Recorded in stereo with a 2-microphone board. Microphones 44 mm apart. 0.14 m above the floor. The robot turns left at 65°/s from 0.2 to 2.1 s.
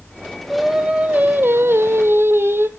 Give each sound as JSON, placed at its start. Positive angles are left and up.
{"t": 0.5, "sound": "singing", "azimuth_deg": 0, "distance_m": 1.1}